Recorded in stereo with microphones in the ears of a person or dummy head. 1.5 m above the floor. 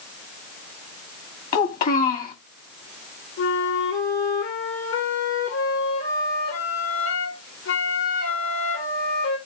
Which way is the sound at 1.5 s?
45° left (ahead or behind).